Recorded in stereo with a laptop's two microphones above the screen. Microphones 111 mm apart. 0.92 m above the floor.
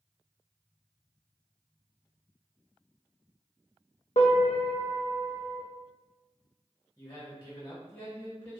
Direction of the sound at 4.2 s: 70° left (ahead or behind).